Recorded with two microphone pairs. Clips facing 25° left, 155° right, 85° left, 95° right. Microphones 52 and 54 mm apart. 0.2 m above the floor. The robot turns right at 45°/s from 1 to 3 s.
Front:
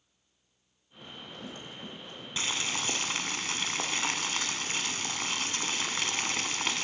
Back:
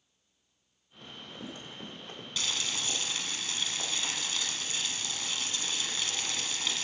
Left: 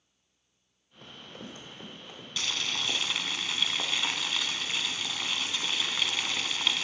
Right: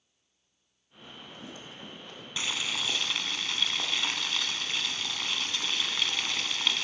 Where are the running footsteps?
115° left, 4 m; by 2.3 s 175° left, 4.5 m.